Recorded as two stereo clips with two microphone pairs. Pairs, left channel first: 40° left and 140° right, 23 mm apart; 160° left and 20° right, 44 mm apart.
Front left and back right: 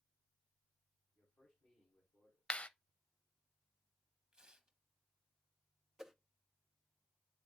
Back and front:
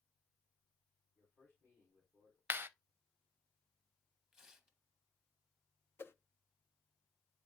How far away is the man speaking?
About 4 m.